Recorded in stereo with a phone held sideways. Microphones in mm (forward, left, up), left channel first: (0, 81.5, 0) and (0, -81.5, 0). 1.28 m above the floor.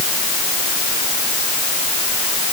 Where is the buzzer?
I don't hear a buzzer.